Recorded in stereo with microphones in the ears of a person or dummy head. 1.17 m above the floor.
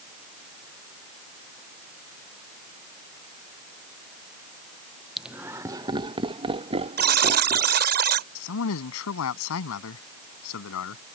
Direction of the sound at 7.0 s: 50° right (ahead or behind).